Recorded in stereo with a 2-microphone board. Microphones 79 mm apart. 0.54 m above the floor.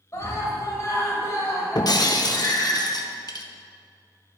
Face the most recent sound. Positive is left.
turn(degrees=55)  # may be behind; listen again after turning